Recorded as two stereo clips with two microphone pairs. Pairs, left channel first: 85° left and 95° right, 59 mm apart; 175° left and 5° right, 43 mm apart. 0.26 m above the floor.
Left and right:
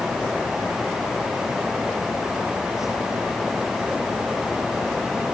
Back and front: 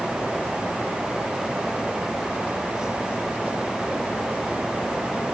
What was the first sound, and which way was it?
Only background noise.